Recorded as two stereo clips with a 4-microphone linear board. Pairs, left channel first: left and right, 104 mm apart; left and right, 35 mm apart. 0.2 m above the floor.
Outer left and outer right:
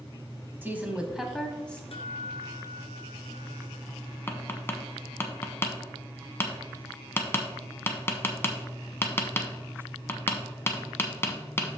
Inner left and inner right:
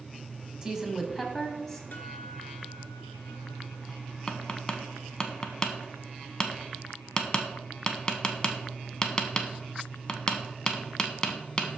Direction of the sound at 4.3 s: 25° left (ahead or behind).